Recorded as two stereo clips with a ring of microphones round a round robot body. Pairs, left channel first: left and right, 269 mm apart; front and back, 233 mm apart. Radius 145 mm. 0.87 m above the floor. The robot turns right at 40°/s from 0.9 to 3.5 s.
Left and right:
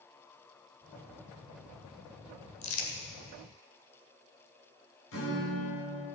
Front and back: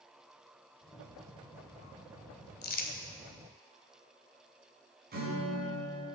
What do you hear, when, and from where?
2.6 s crumpling: 45° left, 2 m; by 2.9 s 60° left, 2 m
5.1 s a guitar: 135° left, 5 m